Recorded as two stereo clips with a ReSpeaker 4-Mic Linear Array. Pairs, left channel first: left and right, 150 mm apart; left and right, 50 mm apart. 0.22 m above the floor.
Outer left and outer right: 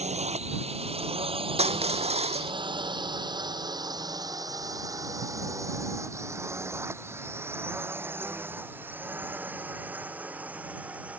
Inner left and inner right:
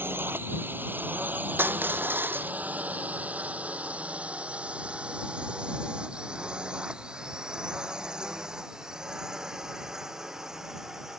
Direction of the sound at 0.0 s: 50° right (ahead or behind).